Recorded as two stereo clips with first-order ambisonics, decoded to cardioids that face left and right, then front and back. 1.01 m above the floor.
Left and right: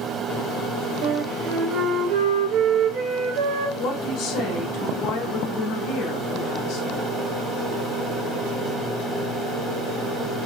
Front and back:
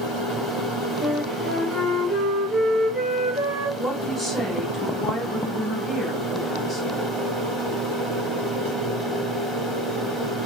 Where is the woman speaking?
65° left, 1.3 m.